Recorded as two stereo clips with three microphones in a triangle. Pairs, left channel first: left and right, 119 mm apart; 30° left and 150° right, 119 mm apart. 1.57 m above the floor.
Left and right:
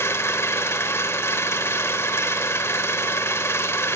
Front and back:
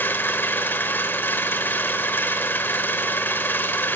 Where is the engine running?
70° left, 1.3 m.